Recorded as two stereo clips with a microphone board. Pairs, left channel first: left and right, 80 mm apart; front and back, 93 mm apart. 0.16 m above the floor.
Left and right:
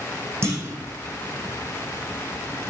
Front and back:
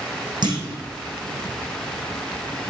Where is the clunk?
145° right, 3 m.